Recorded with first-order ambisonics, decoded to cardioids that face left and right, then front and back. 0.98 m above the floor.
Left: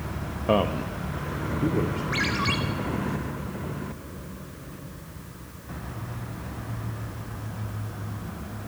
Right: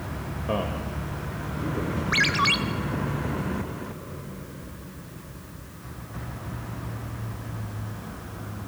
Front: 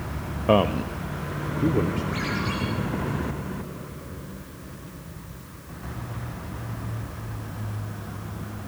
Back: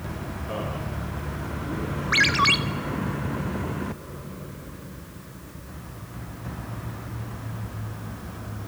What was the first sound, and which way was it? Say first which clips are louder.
A man speaking: left 6 dB, front 13 dB; 25° left.